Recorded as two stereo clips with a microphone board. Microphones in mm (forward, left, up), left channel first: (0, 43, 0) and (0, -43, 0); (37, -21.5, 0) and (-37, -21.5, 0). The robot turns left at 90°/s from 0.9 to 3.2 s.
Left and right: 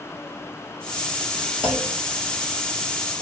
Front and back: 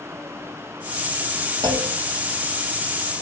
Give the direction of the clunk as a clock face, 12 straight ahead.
6 o'clock.